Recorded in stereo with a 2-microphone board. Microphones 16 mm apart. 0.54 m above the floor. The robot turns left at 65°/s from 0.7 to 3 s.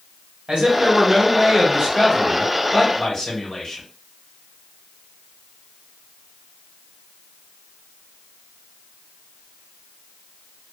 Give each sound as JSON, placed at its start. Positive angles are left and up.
{"t": 0.5, "sound": "a man speaking", "azimuth_deg": -75, "distance_m": 1.2}